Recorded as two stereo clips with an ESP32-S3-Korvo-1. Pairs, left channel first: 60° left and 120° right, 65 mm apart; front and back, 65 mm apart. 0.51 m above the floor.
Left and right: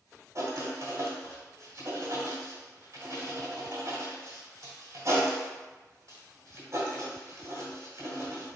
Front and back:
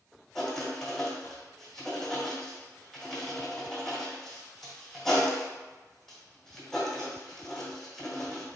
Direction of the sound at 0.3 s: 85° right.